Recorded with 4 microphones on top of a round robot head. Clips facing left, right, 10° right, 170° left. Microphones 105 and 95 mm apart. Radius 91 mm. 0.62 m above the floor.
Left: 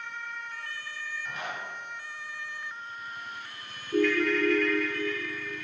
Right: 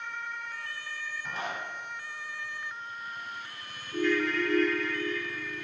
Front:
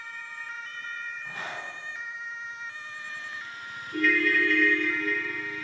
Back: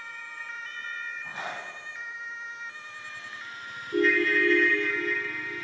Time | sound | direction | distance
1.2 | a zipper | 130° right | 1.1 m
3.9 | a ringtone | 110° left | 0.5 m